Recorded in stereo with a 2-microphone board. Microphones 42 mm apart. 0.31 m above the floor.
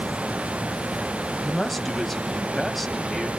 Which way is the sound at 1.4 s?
Centre (ahead or behind).